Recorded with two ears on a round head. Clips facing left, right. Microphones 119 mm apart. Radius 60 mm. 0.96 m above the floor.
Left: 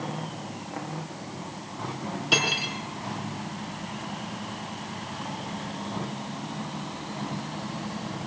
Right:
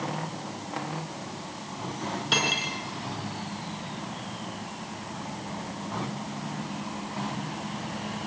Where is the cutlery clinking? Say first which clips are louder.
Left 2 dB; 10° left (ahead or behind), 6.5 m.